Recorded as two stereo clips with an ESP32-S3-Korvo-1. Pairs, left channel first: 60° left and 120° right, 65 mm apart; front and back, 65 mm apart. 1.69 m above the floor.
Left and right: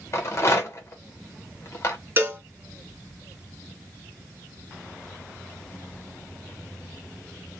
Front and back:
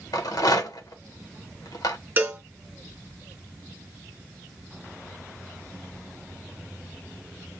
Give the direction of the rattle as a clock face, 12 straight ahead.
11 o'clock.